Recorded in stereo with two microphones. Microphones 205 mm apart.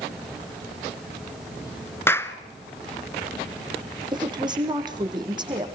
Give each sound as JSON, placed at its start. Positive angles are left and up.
{"t": 2.1, "sound": "a clap", "side_deg": 10, "distance_m": 1.2}
{"t": 4.1, "sound": "a woman speaking", "side_deg": -20, "distance_m": 4.0}